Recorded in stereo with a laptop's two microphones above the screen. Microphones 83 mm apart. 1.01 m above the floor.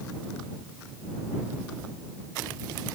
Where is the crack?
No crack in this recording.